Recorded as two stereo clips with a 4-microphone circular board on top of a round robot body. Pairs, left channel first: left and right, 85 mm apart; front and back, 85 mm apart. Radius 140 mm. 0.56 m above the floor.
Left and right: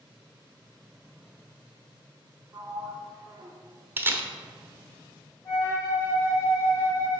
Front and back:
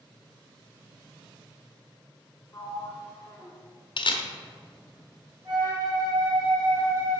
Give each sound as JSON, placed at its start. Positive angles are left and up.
{"t": 2.5, "sound": "a sliding door", "azimuth_deg": -55, "distance_m": 1.3}
{"t": 4.0, "sound": "a camera shutter", "azimuth_deg": -25, "distance_m": 0.8}
{"t": 5.5, "sound": "a flute", "azimuth_deg": 140, "distance_m": 2.5}